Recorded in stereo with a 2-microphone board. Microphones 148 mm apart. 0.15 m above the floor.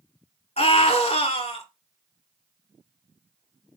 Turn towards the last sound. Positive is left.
turn(degrees=45)  # may be behind; listen again after turning